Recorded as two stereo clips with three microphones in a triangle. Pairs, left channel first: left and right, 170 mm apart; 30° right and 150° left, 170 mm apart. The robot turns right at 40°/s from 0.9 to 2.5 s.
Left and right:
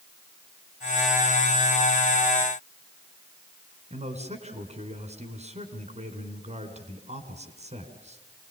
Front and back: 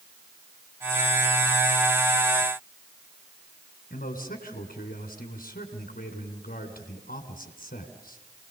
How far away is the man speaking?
About 3 m.